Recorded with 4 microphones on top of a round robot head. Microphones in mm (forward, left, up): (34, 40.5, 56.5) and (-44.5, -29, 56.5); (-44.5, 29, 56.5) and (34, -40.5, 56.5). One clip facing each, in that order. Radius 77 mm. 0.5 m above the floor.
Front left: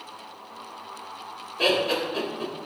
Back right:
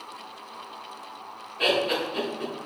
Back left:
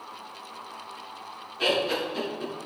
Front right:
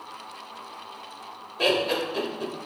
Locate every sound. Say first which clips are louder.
1.6 s laughter: front left 1 dB, front right 2 dB; 15° right, 2 m